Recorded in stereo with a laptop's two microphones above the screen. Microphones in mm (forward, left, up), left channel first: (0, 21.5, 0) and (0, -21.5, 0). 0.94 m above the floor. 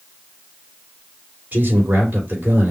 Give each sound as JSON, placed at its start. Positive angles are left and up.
{"t": 1.5, "sound": "a man speaking", "side_deg": -40, "distance_m": 3.0}